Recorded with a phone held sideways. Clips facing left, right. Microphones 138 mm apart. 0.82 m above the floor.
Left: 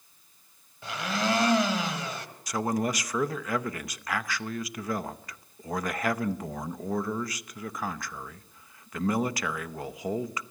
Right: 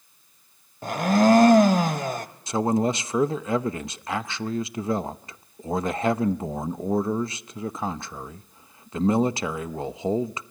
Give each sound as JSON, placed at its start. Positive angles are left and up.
{"t": 0.8, "sound": "a blender", "side_deg": -45, "distance_m": 1.2}
{"t": 2.5, "sound": "a man speaking", "side_deg": -25, "distance_m": 0.7}